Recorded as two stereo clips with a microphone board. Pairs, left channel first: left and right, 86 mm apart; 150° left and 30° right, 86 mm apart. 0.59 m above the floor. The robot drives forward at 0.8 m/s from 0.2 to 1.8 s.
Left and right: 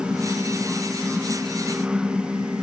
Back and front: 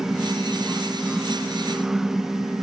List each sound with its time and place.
Only background noise.